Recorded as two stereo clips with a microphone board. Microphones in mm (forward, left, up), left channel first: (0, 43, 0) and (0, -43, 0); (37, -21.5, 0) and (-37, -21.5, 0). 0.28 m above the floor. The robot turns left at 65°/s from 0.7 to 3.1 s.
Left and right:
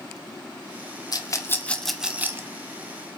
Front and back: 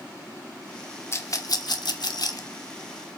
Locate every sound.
1.1 s a rattle: 55° left, 1.0 m; by 2.5 s 35° right, 1.0 m